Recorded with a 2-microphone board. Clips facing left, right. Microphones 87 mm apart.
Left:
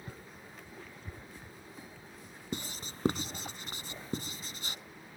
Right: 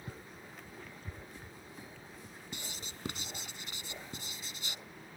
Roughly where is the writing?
Left.